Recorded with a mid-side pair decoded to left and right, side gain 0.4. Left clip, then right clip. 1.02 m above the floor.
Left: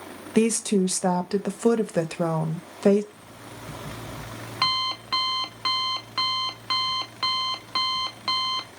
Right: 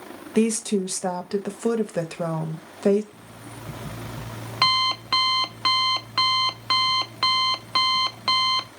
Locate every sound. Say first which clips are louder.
0.3 s a woman speaking: left 1 dB; 20° left, 1.0 m
3.1 s an alarm clock: right 1 dB; 35° right, 0.6 m